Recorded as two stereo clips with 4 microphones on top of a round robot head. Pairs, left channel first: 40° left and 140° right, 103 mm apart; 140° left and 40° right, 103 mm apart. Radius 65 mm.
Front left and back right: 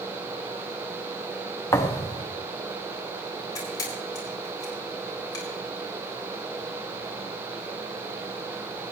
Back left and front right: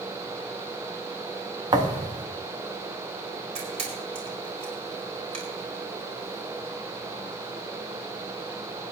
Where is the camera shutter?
15° right, 5 m.